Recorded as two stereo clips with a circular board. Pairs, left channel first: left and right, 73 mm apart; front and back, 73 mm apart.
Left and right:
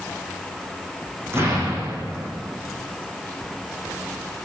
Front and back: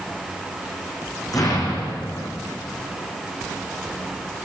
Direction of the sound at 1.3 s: 35° right.